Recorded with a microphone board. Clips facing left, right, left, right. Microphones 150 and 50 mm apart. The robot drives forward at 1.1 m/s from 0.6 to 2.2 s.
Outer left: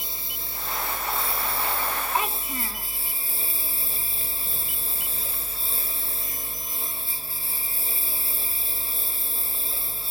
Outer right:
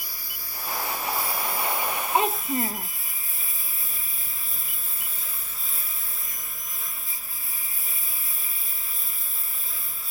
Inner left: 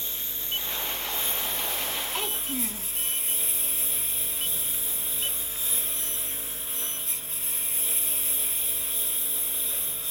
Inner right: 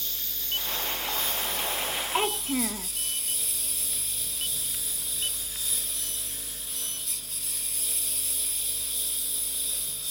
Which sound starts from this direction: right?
A child speaking, at 2.1 s.